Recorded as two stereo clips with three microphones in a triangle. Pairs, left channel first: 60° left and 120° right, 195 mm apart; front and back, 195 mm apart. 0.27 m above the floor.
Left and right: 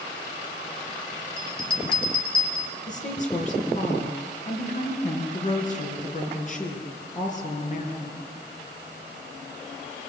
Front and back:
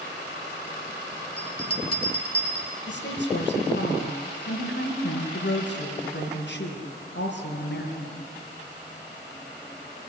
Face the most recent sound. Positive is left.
turn(degrees=10)